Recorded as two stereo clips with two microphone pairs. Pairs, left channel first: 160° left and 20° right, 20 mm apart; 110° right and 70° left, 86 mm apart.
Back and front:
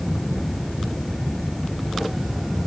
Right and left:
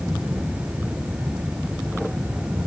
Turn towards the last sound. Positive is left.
No sound to turn to.